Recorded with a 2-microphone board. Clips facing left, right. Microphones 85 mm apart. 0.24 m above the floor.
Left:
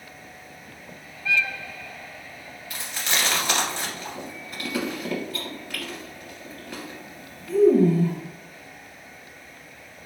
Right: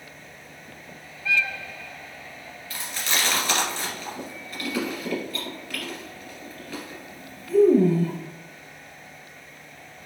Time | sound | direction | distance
2.7 | chewing | 20° left (ahead or behind) | 2 m